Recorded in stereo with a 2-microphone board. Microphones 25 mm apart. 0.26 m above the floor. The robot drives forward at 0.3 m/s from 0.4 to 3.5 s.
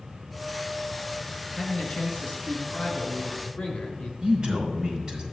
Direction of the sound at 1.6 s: 60° left (ahead or behind).